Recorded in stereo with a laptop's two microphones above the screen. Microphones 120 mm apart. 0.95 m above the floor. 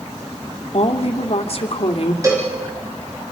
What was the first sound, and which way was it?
A woman speaking, 55° left (ahead or behind).